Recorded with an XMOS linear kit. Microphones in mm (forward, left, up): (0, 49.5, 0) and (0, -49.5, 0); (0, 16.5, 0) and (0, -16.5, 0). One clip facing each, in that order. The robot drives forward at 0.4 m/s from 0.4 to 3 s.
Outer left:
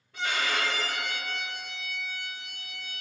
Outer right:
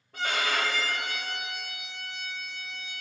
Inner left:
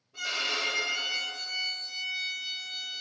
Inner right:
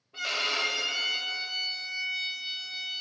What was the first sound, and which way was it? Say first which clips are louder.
A violin: outer right 1 dB, inner right 2 dB; 45° right (ahead or behind).